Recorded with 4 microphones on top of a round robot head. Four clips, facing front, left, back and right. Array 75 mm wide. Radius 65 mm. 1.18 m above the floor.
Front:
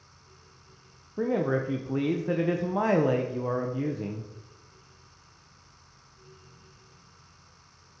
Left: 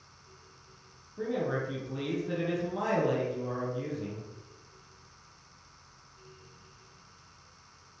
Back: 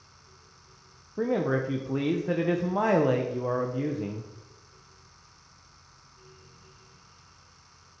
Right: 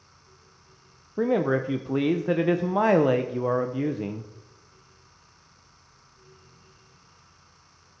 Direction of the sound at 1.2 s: 90° right.